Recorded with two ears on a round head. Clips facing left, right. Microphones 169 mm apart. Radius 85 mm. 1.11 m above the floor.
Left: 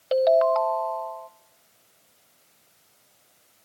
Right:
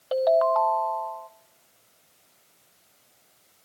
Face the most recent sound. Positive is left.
turn(degrees=30)  # may be behind; listen again after turning